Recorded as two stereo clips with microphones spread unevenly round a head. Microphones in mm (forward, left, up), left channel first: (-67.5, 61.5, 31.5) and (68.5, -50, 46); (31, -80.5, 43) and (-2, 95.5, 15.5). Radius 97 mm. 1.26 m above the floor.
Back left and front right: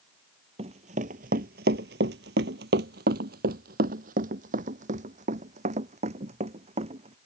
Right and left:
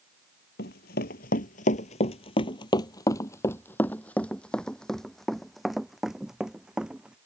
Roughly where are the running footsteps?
Right.